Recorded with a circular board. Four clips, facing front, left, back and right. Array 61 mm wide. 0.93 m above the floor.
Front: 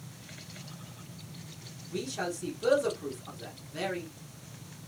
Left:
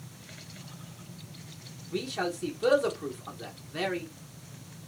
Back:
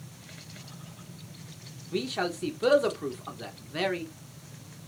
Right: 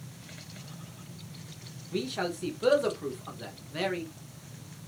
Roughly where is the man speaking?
Behind.